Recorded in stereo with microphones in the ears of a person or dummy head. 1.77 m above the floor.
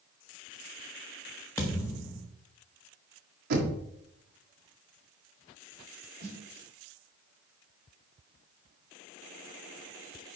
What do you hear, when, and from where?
1.6 s a thud: 10° left (ahead or behind), 1.1 m
3.5 s knocking: 55° right (ahead or behind), 1.7 m
6.2 s a snare drum: 60° right (ahead or behind), 4 m